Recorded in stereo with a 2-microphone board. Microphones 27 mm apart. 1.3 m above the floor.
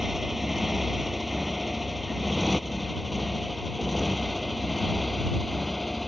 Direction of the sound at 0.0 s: 10° right (ahead or behind).